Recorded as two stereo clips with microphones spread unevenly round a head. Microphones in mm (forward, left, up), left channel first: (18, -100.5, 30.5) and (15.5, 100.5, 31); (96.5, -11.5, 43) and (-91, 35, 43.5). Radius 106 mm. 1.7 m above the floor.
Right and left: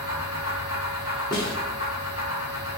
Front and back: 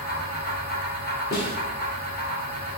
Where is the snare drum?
30° right, 1.6 m.